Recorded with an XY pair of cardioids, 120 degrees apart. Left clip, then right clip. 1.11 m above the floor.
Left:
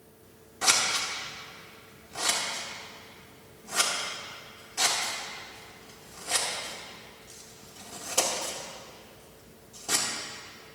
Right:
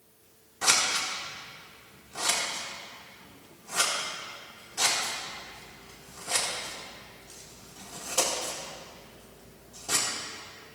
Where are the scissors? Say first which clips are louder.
Even; 15° left, 1.9 m.